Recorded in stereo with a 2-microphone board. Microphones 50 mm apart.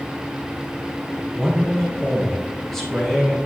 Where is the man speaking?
5° left (ahead or behind), 2.5 m.